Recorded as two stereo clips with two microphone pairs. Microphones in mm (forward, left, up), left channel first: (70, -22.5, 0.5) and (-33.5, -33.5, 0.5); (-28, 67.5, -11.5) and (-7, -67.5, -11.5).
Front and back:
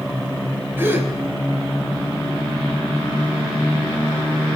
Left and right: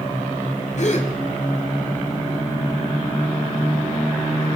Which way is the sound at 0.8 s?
120° left.